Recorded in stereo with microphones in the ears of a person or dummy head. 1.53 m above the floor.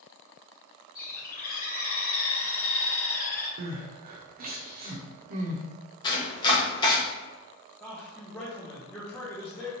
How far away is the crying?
About 0.6 m.